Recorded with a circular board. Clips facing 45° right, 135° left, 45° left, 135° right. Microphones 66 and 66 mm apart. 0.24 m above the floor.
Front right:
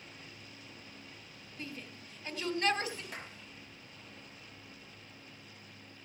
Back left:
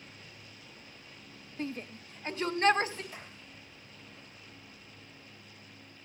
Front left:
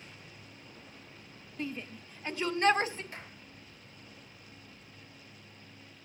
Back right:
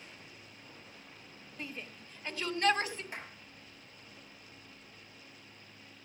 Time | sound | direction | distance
1.6 | a shout | 145° left | 1.3 m
3.1 | a clap | 65° right | 3.5 m